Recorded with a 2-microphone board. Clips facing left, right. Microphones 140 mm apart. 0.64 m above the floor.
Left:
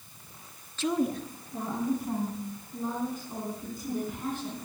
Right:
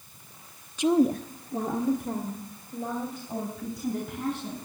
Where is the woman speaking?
10° right (ahead or behind), 0.7 m; by 4.6 s 80° right, 5.5 m.